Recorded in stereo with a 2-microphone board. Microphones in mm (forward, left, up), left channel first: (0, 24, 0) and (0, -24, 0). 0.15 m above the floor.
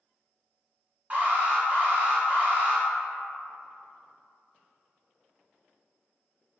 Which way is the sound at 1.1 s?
30° right (ahead or behind).